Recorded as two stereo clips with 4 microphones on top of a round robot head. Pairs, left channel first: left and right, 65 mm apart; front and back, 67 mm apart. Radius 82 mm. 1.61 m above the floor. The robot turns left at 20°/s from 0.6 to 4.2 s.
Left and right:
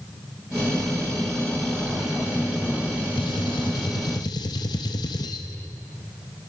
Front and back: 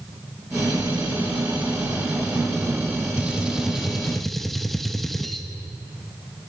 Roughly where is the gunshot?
Left.